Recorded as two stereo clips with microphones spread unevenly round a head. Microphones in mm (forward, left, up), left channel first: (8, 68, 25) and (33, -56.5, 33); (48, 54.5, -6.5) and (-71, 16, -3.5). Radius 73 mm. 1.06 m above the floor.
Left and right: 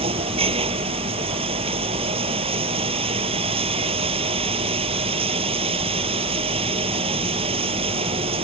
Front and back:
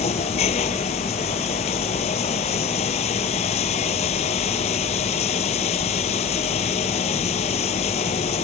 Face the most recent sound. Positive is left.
turn(degrees=-35)